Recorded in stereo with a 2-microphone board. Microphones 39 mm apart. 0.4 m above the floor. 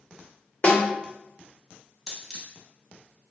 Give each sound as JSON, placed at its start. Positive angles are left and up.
{"t": 0.6, "sound": "a snare drum", "side_deg": 35, "distance_m": 1.1}
{"t": 2.1, "sound": "a dropped coin", "side_deg": 20, "distance_m": 1.0}